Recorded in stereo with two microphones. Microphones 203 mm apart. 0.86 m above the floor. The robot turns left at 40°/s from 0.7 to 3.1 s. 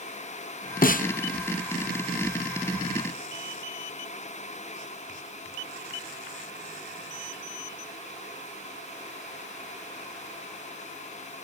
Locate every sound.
0.8 s a snare drum: 45° left (ahead or behind), 0.6 m; by 1.1 s 40° left (ahead or behind), 0.6 m